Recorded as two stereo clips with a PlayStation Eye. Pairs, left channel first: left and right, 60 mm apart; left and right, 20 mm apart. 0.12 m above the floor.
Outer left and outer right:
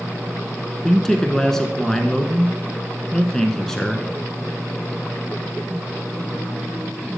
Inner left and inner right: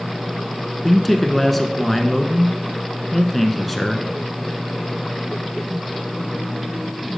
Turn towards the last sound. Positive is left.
turn(degrees=10)  # may be behind; listen again after turning